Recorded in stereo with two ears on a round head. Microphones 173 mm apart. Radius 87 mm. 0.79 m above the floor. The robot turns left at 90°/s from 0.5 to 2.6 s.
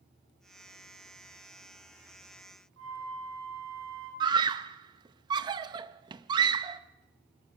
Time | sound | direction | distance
2.8 | a flute | 85° right | 10 m
4.2 | a scream | 25° right (ahead or behind) | 0.6 m